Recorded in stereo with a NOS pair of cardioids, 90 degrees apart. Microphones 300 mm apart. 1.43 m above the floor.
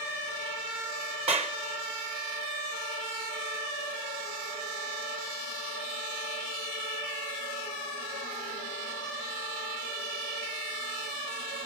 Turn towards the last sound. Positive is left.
turn(degrees=-20)